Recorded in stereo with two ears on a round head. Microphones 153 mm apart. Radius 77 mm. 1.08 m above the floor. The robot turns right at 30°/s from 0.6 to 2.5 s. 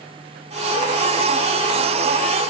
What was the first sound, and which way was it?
Only background noise.